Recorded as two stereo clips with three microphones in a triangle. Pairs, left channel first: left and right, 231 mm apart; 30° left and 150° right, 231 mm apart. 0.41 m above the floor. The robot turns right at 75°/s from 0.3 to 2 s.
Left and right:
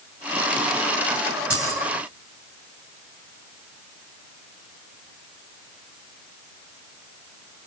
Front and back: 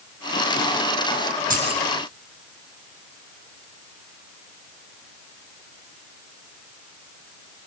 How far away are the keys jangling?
About 3.5 m.